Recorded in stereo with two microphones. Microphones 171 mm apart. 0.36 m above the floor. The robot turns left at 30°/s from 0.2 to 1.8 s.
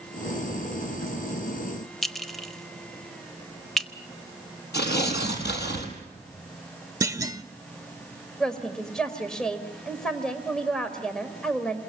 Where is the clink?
Centre (ahead or behind), 0.9 m.